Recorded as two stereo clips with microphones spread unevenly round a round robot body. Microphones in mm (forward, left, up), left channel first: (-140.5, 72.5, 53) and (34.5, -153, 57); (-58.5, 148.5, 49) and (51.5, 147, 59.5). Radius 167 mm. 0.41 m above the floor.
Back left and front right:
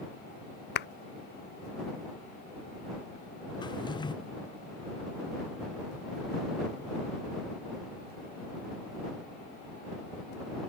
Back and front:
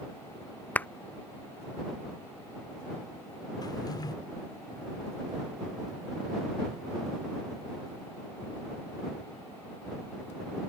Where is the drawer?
165° right.